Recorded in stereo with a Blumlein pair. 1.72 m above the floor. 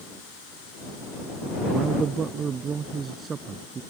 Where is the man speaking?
25° right; by 3.8 s 20° right.